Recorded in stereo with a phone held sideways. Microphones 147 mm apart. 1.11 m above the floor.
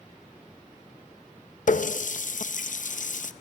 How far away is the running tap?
About 0.6 m.